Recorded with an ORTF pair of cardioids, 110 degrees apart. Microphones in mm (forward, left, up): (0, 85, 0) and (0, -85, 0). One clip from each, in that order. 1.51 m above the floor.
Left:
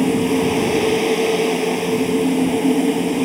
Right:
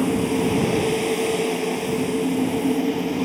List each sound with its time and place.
0.0 s a fan: 30° left